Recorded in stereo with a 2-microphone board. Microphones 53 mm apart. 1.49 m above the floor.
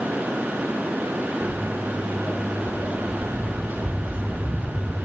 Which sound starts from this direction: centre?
Footsteps, at 1.4 s.